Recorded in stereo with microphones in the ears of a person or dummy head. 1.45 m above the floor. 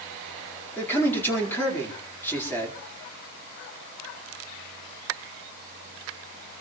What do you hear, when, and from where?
0.8 s a man speaking: 15° left (ahead or behind), 4.5 m